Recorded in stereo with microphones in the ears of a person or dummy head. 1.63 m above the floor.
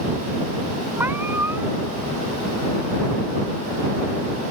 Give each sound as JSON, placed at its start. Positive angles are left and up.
{"t": 1.0, "sound": "a cat meowing", "side_deg": -15}